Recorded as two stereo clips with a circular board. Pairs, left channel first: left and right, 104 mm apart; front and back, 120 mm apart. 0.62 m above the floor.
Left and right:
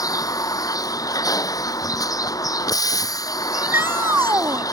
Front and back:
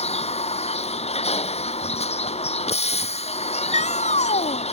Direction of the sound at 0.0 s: 35° left.